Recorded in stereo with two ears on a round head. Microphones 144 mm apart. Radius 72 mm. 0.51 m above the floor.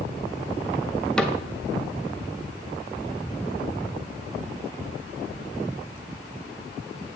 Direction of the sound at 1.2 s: 5° left (ahead or behind).